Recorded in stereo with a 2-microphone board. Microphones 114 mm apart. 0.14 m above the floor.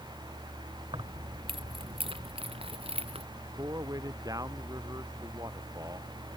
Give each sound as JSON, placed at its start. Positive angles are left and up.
{"t": 0.9, "sound": "keys jangling", "side_deg": -45}
{"t": 3.6, "sound": "a man speaking", "side_deg": -30}